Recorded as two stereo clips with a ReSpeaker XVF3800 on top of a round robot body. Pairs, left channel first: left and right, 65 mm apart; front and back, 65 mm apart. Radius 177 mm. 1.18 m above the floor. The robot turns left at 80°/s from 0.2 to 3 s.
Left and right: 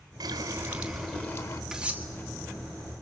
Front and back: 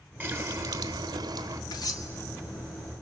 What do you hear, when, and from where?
0.2 s a running tap: 115° right, 0.9 m; by 1.6 s 130° left, 0.9 m
1.7 s cutlery clinking: 10° right, 1.1 m; by 2.1 s 40° right, 1.1 m